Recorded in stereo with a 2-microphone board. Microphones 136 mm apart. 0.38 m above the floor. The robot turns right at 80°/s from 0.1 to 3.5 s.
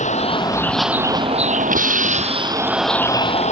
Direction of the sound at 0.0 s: 65° left (ahead or behind).